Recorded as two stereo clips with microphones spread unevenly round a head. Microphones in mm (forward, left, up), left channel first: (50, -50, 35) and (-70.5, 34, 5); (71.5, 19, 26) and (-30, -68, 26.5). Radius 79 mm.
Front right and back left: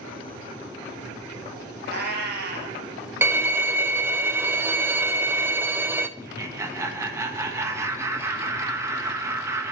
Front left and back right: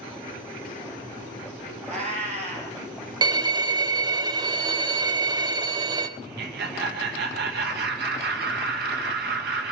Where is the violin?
175° right, 0.5 m.